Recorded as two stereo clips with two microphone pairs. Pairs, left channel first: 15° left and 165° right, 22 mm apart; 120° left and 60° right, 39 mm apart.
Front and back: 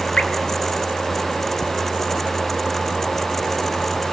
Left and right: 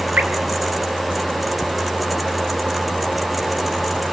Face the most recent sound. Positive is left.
turn(degrees=-20)